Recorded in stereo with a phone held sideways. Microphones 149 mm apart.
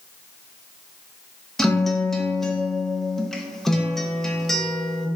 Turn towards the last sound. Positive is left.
turn(degrees=0)  # may be behind; listen again after turning